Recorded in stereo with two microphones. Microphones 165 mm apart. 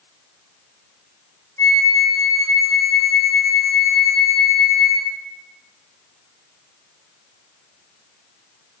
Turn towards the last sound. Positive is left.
turn(degrees=15)  # may be behind; listen again after turning